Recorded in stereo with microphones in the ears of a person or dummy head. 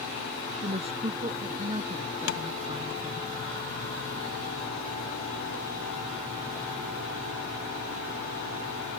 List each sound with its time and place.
0.5 s a woman speaking: 30° right (ahead or behind); by 3.3 s 20° right (ahead or behind)
2.3 s tapping: 80° left